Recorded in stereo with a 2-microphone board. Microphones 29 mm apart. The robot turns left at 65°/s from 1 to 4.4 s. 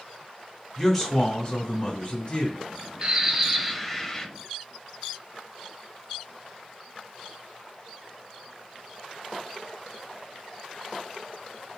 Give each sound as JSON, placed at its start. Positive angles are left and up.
{"t": 0.8, "sound": "a man speaking", "azimuth_deg": 165, "distance_m": 1.6}
{"t": 3.0, "sound": "a bird", "azimuth_deg": -135, "distance_m": 0.5}